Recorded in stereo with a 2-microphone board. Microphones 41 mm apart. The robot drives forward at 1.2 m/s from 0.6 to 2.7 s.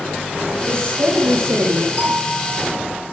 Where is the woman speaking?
65° right (ahead or behind), 7 m; by 1.9 s 75° right (ahead or behind), 6.5 m.